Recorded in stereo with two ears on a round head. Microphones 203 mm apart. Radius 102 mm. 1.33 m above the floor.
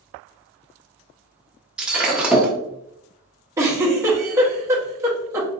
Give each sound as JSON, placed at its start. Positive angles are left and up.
{"t": 1.8, "sound": "breaking glass", "side_deg": -5, "distance_m": 0.8}
{"t": 3.6, "sound": "a giggle", "side_deg": -15, "distance_m": 0.9}